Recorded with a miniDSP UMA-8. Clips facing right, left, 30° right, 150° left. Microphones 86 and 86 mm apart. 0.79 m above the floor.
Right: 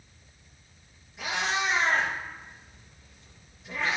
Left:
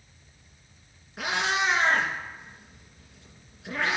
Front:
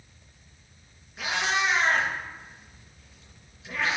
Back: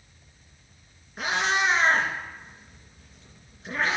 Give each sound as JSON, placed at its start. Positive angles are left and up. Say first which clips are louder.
{"t": 1.2, "sound": "a cat meowing", "louder": "left 2 dB, back 2 dB", "azimuth_deg": 100, "distance_m": 2.5}